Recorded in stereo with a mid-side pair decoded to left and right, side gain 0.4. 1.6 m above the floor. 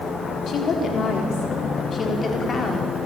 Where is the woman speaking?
60° left, 5 m; by 2.9 s 40° left, 5.5 m.